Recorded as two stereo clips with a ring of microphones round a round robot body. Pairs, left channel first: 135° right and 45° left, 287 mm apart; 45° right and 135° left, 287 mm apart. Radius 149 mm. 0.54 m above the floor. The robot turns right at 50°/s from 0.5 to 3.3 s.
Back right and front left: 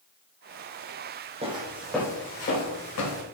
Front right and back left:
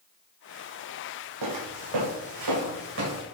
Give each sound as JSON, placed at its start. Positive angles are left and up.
{"t": 1.4, "sound": "footsteps", "azimuth_deg": 115, "distance_m": 2.0}